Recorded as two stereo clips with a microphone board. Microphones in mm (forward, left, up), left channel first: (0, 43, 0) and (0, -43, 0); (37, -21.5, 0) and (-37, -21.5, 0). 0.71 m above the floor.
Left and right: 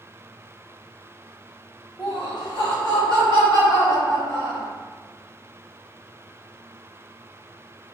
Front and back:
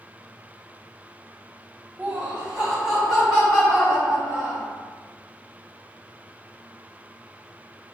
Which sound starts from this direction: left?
Laughter, at 2.0 s.